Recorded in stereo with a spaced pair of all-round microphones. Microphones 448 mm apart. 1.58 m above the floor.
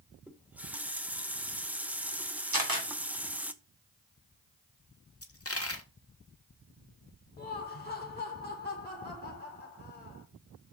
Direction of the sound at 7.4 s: 20° left (ahead or behind).